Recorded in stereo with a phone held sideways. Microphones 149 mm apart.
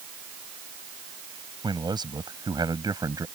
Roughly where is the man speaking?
Right.